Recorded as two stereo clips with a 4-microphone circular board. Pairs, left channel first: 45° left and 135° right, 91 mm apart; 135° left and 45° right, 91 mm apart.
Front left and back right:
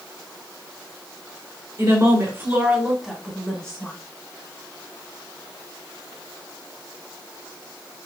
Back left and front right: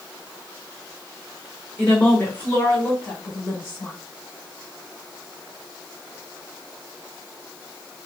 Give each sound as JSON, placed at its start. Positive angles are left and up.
{"t": 1.8, "sound": "a woman speaking", "azimuth_deg": -155, "distance_m": 2.0}